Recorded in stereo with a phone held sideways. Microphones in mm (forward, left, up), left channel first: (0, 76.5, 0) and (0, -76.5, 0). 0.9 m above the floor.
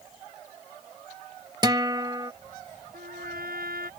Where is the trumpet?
75° right (ahead or behind).